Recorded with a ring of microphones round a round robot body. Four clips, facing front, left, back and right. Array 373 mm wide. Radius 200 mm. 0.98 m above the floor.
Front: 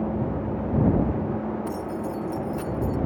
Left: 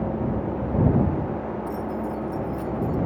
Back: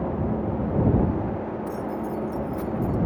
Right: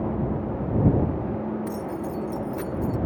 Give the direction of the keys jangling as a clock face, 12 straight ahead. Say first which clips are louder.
Left 2 dB, back 1 dB; 2 o'clock.